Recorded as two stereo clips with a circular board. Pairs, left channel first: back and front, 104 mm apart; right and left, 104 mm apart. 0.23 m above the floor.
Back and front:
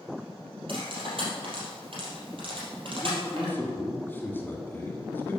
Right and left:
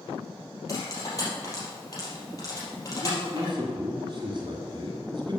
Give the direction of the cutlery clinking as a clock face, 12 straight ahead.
1 o'clock.